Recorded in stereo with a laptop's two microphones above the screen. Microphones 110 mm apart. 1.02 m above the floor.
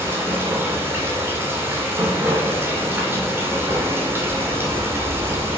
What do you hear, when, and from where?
0.0 s running water: 20° right (ahead or behind), 2.5 m